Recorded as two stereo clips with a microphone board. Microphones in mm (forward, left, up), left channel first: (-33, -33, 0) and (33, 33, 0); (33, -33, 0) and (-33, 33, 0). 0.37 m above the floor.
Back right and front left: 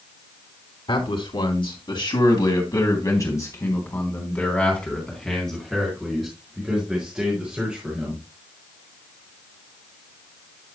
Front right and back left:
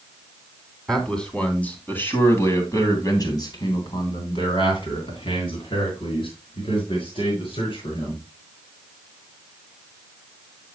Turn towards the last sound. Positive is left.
turn(degrees=-35)